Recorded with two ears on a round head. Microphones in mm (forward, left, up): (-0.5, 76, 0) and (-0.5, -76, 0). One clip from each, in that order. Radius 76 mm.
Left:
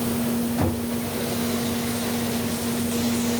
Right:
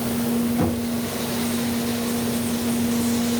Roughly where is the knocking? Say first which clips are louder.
Right 2 dB; left.